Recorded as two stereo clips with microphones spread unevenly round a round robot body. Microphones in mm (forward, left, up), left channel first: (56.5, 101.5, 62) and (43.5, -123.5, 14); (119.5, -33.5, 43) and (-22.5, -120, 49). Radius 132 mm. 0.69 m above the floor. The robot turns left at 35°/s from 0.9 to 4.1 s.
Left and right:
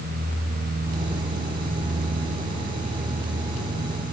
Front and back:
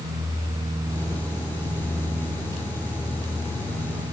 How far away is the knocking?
No knocking in this recording.